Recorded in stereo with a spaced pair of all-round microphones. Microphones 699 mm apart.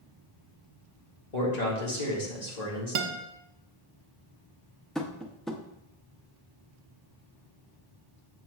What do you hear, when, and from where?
1.3 s a man speaking: 70° left (ahead or behind), 1.9 m
3.0 s a guitar: 80° right, 0.7 m
5.0 s tapping: centre (ahead or behind), 0.5 m